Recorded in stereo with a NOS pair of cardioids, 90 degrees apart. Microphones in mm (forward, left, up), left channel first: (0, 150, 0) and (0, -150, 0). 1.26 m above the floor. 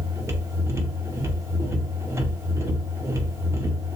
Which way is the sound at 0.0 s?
10° right.